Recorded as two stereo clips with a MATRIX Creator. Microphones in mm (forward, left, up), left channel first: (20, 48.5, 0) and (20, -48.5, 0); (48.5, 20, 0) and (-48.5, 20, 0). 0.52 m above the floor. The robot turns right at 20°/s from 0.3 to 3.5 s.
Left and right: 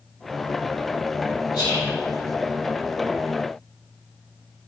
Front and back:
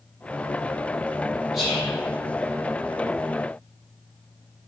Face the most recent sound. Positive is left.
turn(degrees=135)